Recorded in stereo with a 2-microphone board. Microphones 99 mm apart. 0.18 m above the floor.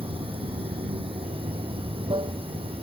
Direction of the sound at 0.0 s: 65° right (ahead or behind).